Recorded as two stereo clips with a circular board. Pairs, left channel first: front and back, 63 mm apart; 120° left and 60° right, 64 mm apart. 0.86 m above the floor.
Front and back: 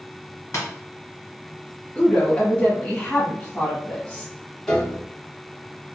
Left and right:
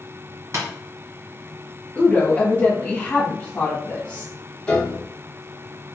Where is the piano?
70° left, 0.9 m.